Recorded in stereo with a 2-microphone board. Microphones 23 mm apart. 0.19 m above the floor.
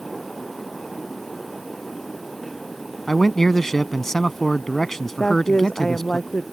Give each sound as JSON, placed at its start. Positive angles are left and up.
{"t": 3.1, "sound": "a man speaking", "side_deg": 20}
{"t": 5.2, "sound": "a woman speaking", "side_deg": 40}